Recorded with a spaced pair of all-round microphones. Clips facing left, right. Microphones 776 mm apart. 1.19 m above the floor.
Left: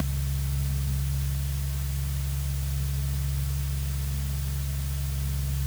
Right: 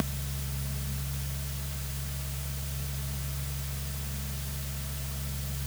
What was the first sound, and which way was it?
A fan, 35° left (ahead or behind).